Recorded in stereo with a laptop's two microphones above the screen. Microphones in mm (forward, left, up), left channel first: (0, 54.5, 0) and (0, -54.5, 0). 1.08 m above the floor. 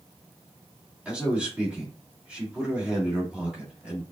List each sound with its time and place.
1.1 s a man speaking: 10° right (ahead or behind), 1.6 m